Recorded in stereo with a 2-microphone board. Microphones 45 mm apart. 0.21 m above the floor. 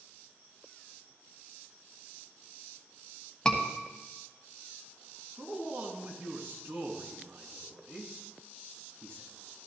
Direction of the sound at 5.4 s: 55° right (ahead or behind).